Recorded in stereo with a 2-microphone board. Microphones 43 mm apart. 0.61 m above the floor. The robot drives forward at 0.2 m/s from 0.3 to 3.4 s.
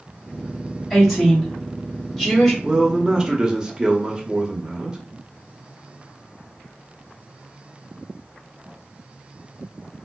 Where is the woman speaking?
5° left (ahead or behind), 1.7 m; by 2.5 s centre (ahead or behind), 1.9 m.